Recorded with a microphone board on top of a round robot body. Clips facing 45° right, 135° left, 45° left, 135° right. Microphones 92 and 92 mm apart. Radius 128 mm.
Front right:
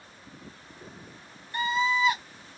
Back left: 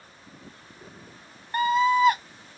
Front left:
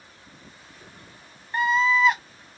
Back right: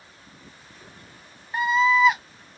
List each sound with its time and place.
1.5 s a scream: 140° left, 1.2 m